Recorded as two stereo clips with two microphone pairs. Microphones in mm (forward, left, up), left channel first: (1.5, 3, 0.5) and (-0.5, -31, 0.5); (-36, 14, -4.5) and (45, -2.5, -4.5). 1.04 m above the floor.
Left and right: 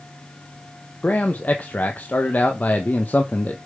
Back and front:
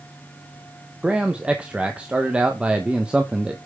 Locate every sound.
1.0 s a man speaking: 60° left, 0.8 m